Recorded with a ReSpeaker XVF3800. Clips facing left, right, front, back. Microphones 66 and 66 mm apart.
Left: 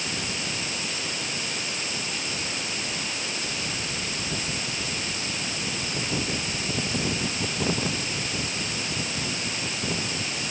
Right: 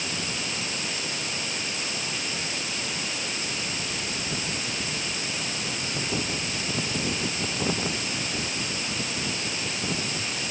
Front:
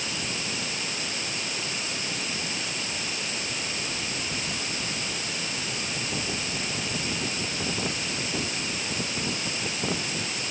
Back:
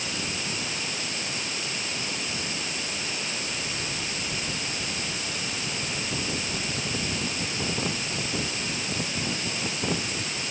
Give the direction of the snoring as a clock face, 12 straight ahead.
I don't hear snoring.